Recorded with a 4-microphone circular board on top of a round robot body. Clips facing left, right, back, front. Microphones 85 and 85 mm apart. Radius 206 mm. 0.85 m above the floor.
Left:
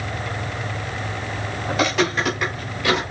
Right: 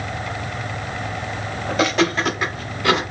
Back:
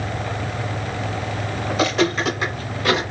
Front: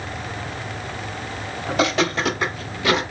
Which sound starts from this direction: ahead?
Footsteps, at 1.7 s.